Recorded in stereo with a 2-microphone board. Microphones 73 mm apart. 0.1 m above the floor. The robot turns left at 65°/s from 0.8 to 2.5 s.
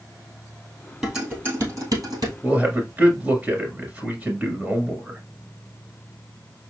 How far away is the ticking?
I don't hear ticking.